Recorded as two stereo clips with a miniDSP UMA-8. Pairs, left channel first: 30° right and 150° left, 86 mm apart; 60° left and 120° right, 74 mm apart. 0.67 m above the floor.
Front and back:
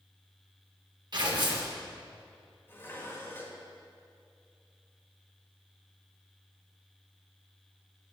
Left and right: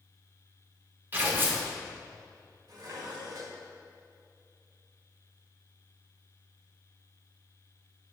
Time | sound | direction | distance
1.1 | tearing paper | straight behind | 1.2 m
2.7 | dishes clattering | 90° right | 1.4 m